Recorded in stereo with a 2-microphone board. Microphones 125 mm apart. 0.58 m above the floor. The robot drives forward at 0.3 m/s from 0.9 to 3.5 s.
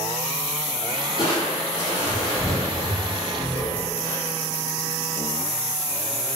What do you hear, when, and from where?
1.2 s crushing: 45° left (ahead or behind), 1.8 m; by 4.2 s 35° left (ahead or behind), 2.5 m